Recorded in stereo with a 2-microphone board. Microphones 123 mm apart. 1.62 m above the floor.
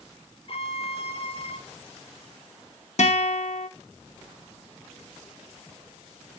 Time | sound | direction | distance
0.5 | a violin | 50° left (ahead or behind) | 0.5 m
3.0 | a guitar | 65° left (ahead or behind) | 0.7 m